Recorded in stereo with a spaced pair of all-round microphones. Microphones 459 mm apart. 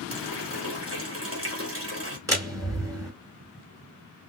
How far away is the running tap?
About 2.5 m.